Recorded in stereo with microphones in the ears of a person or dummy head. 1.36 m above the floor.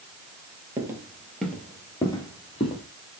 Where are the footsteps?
20° right (ahead or behind), 1.6 m; by 2.8 s 30° left (ahead or behind), 2 m.